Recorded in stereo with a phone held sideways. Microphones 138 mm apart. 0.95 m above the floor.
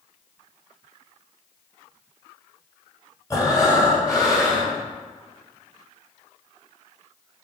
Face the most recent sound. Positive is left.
turn(degrees=25)  # may be behind; listen again after turning